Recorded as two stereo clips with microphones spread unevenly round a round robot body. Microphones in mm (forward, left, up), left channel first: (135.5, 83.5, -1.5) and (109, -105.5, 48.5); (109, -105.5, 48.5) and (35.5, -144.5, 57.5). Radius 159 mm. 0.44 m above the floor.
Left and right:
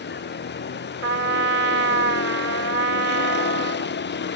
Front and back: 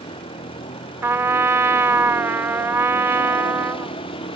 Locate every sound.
0.0 s a vehicle: 55° left
1.0 s a trumpet: 90° right